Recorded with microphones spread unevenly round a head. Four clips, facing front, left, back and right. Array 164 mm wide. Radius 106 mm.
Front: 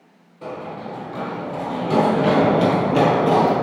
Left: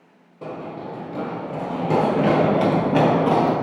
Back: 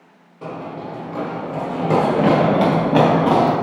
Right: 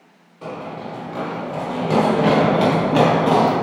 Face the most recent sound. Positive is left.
turn(degrees=-165)